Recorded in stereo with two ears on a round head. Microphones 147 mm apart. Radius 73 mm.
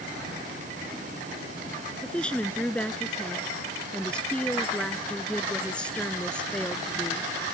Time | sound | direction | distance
2.0 | a woman speaking | 5° left (ahead or behind) | ?